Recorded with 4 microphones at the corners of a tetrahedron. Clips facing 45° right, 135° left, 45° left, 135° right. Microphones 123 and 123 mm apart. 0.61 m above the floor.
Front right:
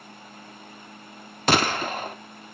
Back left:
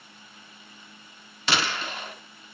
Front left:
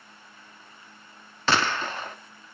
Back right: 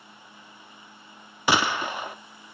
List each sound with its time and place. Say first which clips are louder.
1.5 s a gunshot: front right 6 dB, back right 1 dB; 60° right, 0.5 m